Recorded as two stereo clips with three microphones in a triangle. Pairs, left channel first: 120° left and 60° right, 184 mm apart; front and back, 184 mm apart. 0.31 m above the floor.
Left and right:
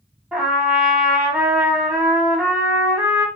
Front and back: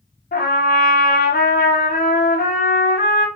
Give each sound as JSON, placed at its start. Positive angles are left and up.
{"t": 0.3, "sound": "a trumpet", "azimuth_deg": 25, "distance_m": 0.8}